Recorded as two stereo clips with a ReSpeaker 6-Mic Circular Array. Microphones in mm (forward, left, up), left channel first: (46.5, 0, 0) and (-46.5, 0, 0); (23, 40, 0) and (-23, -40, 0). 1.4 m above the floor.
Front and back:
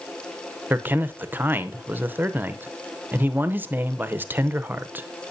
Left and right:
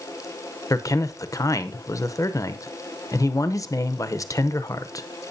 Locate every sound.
0.7 s a man speaking: 110° left, 0.8 m